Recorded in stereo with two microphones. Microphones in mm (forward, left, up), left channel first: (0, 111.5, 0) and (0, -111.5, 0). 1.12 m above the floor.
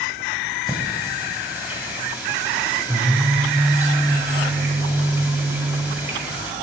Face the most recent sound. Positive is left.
turn(degrees=-10)  # may be behind; listen again after turning